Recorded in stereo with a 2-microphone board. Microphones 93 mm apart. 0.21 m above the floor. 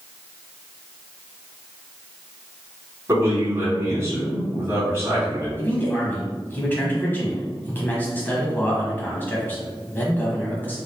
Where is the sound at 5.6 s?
20° left (ahead or behind), 1.1 m.